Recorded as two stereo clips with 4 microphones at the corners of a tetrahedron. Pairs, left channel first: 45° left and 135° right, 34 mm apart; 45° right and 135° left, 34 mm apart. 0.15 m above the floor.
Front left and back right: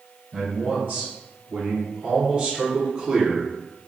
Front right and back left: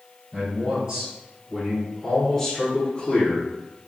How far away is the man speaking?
About 1.6 m.